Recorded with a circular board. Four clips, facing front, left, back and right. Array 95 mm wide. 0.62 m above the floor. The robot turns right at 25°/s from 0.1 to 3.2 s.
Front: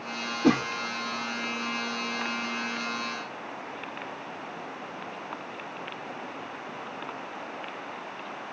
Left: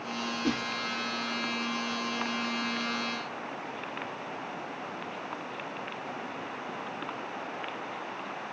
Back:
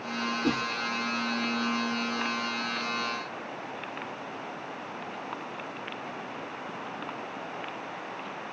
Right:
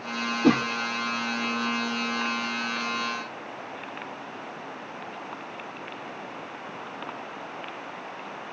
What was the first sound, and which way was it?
A whoosh, 55° right.